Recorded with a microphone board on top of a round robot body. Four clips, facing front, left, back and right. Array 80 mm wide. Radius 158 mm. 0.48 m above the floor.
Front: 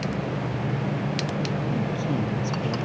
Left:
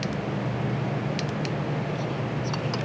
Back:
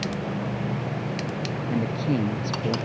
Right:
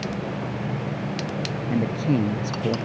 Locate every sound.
1.7 s a man speaking: 115° right